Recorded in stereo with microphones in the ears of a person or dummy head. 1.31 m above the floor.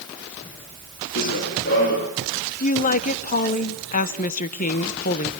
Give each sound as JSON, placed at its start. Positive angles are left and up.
{"t": 1.1, "sound": "running footsteps", "side_deg": 55, "distance_m": 4.0}
{"t": 2.6, "sound": "a woman speaking", "side_deg": 40, "distance_m": 1.0}